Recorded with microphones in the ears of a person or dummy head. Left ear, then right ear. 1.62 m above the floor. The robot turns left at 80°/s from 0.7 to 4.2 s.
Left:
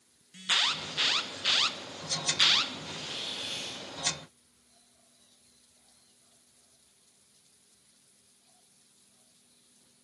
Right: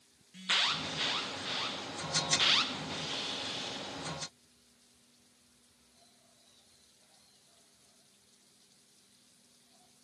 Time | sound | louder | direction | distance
0.3 | an alarm | left 3 dB | 15° left (ahead or behind) | 0.5 m
2.9 | a hiss | even | 175° right | 1.3 m